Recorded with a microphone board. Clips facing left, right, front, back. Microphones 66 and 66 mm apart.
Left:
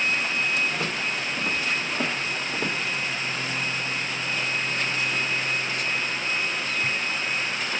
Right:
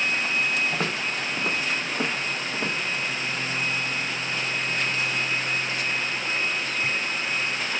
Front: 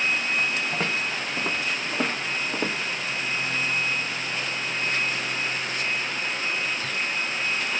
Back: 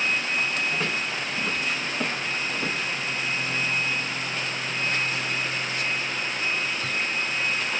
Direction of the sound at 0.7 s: 50° right.